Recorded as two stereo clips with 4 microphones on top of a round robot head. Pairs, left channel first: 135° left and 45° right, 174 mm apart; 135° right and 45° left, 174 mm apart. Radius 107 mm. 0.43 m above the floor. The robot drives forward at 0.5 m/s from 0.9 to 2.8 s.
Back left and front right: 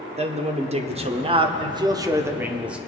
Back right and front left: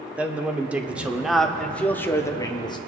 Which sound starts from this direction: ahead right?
A man speaking, at 0.2 s.